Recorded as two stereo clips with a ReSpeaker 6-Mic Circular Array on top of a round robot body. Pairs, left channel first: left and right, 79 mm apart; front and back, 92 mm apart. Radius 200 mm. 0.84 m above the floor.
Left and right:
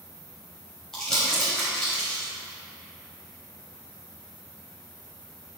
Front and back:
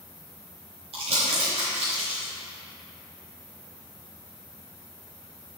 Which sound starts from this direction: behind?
Crumpling, at 0.9 s.